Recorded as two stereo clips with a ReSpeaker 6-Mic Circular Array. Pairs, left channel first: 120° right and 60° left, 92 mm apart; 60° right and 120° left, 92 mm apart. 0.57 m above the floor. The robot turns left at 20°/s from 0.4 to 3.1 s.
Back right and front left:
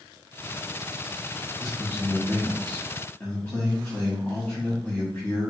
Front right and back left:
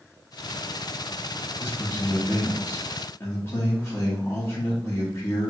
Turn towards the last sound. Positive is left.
turn(degrees=-80)